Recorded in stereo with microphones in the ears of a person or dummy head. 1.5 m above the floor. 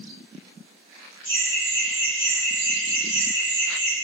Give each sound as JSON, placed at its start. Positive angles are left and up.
{"t": 1.2, "sound": "laughter", "side_deg": 20, "distance_m": 0.8}